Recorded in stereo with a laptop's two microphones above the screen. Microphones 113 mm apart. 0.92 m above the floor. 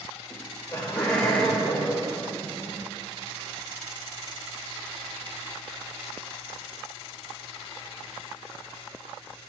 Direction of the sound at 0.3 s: 20° left (ahead or behind).